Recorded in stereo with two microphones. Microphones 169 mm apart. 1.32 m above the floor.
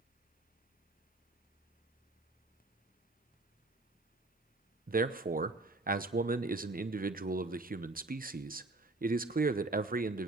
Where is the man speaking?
55° right (ahead or behind), 0.8 m.